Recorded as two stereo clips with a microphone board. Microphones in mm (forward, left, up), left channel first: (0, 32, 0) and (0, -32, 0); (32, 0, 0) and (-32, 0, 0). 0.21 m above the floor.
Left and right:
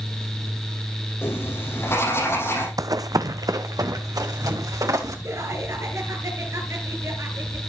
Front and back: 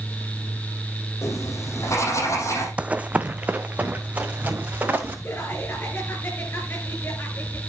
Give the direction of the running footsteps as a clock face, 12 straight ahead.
4 o'clock.